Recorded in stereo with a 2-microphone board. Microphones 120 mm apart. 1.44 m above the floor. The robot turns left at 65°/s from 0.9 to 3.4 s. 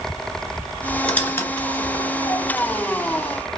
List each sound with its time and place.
1.0 s a squeak: 10° left (ahead or behind), 0.9 m; by 2.9 s 20° left (ahead or behind), 0.9 m